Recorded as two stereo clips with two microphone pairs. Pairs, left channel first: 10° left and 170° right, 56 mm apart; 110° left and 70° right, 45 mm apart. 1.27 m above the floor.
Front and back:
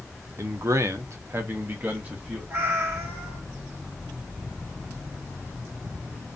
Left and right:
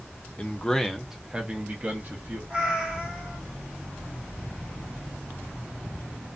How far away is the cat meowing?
About 0.9 m.